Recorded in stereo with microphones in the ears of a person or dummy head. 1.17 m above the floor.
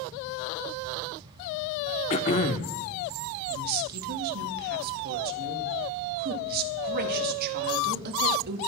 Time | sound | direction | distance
2.1 | throat clearing | 30° left (ahead or behind) | 0.8 m
3.5 | a woman speaking | 55° right (ahead or behind) | 1.9 m